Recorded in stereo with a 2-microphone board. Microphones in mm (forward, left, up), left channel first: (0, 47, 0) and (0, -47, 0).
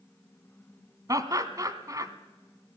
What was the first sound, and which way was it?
Laughter, 40° right (ahead or behind).